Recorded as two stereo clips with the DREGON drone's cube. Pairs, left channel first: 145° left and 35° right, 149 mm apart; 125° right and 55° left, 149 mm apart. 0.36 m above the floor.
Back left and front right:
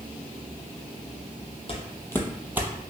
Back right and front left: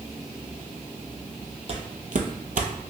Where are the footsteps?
100° left, 0.7 m; by 2.9 s 20° left, 0.7 m.